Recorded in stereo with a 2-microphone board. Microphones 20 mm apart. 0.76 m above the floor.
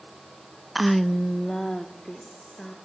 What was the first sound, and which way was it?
A woman speaking, 5° right (ahead or behind).